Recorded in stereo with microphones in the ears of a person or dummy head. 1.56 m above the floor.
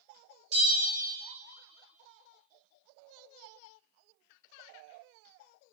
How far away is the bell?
About 1.5 m.